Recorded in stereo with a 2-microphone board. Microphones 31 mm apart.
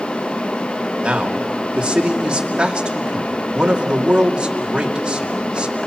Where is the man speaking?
30° right (ahead or behind), 2.5 m.